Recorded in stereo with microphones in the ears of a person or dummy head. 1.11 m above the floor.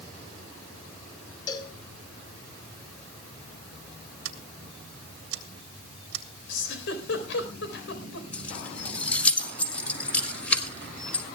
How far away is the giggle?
About 4.5 m.